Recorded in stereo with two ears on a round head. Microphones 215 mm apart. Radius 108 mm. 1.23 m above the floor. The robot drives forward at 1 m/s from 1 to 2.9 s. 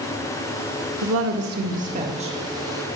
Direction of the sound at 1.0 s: 65° right (ahead or behind).